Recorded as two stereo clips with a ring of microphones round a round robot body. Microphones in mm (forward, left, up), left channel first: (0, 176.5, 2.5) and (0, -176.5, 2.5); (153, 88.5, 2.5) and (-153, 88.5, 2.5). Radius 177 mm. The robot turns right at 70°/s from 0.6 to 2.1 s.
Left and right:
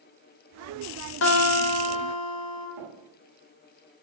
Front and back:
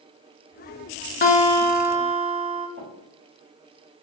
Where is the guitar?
50° left, 0.6 m; by 2.7 s 115° left, 0.6 m.